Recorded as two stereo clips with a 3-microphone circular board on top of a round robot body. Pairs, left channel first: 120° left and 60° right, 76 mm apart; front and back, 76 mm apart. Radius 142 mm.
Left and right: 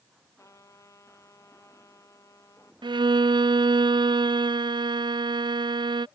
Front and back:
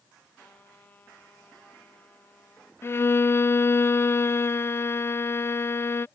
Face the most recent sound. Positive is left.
turn(degrees=-60)